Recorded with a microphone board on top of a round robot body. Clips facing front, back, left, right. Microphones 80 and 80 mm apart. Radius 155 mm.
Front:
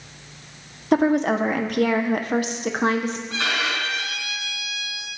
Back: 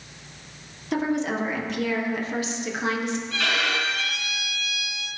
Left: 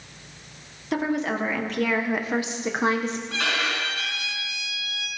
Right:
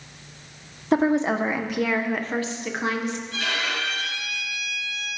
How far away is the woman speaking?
About 1.3 m.